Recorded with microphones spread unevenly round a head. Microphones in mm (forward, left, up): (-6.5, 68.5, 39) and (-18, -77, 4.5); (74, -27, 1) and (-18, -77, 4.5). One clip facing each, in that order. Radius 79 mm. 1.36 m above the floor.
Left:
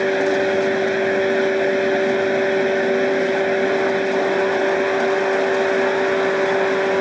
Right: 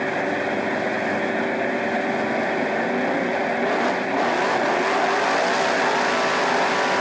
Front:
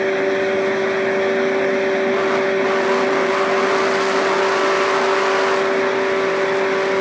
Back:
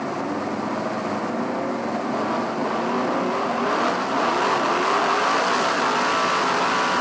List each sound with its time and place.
0.0 s a fan: 40° left